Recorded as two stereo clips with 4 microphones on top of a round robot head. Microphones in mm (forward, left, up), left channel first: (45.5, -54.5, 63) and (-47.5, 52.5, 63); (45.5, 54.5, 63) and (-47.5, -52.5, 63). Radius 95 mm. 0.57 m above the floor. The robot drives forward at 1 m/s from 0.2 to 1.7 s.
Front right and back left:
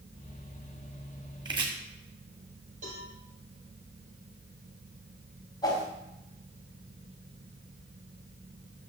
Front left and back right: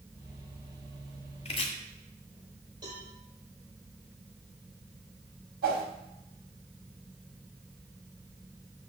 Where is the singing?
I don't hear singing.